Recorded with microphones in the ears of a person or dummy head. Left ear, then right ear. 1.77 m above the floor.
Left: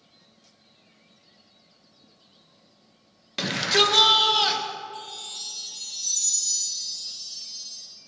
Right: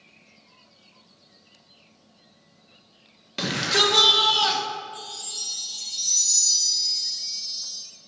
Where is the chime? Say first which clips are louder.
Right 2 dB; 20° left (ahead or behind), 2.5 m.